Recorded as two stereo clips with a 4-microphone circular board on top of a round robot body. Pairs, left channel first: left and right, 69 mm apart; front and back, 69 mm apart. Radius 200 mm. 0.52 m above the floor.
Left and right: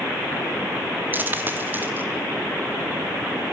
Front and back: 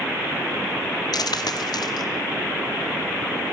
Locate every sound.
1.1 s a dropped coin: 25° right, 0.6 m